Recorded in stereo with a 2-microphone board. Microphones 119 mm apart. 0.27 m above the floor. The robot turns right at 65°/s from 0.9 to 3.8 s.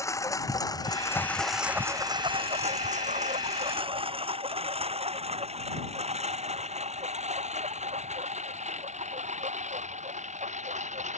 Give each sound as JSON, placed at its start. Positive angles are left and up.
{"t": 0.0, "sound": "a lawn mower", "side_deg": 25}